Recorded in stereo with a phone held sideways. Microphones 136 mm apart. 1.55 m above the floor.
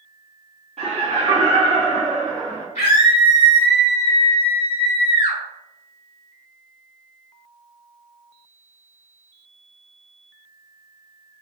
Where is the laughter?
45° right (ahead or behind), 1.1 m; by 2.6 s 5° right (ahead or behind), 2 m.